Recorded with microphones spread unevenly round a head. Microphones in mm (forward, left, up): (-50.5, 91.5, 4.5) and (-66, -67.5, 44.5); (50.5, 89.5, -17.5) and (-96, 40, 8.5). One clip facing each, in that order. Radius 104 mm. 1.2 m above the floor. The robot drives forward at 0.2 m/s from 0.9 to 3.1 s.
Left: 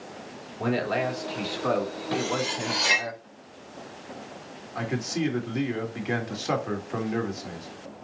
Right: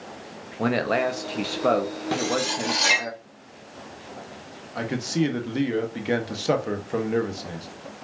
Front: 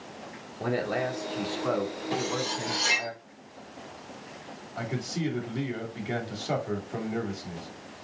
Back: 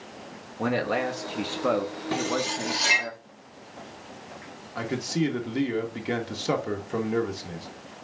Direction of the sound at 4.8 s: 150° right.